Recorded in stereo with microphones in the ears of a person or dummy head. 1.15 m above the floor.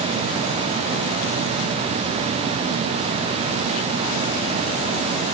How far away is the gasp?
No gasp in this recording.